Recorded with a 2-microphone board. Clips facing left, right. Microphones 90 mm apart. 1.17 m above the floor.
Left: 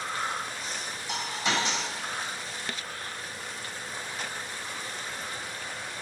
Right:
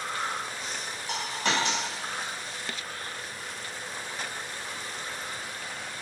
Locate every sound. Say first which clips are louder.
1.1 s a dropped coin: right 1 dB; 60° right (ahead or behind), 1.7 m